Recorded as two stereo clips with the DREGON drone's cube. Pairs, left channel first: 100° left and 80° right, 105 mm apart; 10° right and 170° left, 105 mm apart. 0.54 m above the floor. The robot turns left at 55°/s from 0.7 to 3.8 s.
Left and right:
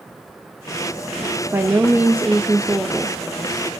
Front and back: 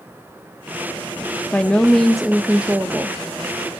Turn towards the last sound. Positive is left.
turn(degrees=165)